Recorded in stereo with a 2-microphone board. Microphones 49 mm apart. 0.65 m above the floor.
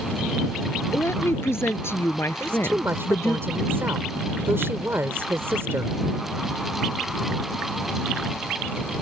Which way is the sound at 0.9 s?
60° left (ahead or behind).